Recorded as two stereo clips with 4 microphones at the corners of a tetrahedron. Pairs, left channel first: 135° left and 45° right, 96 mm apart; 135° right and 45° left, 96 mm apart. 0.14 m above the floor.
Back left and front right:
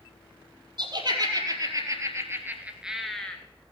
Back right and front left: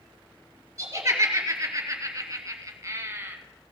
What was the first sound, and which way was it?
Laughter, 10° right.